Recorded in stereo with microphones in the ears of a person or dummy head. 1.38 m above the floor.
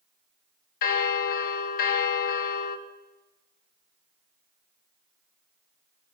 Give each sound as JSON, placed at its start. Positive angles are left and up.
{"t": 0.8, "sound": "a bell", "side_deg": 50, "distance_m": 1.5}